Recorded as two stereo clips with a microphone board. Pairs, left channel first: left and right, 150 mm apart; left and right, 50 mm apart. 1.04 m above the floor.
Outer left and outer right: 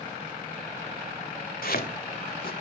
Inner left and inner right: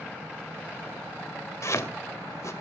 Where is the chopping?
85° left, 2.5 m.